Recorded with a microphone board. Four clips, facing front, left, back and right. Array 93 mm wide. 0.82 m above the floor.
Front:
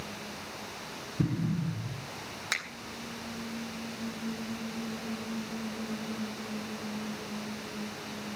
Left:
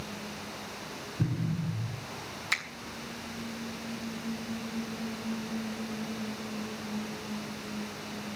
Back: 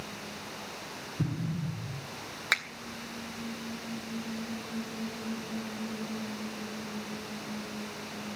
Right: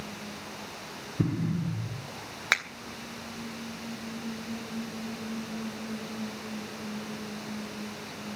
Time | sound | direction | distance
1.2 | an explosion | 70° right | 2 m
2.5 | a finger snap | 110° right | 3.5 m